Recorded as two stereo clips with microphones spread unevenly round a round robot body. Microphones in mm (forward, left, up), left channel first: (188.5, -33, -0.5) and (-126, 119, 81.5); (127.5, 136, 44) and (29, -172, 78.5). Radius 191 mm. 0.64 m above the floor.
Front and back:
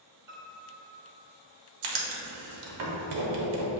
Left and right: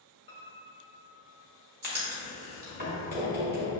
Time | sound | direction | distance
0.3 | a piano | 50° left | 1.2 m
1.8 | writing | 175° right | 0.7 m